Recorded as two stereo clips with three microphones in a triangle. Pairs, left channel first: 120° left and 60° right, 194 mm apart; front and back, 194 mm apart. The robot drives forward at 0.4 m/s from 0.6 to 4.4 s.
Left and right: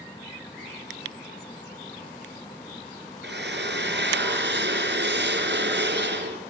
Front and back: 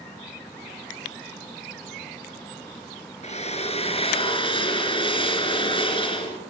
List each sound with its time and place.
3.2 s a drill: 50° right, 2.5 m; by 6.4 s 60° right, 2.5 m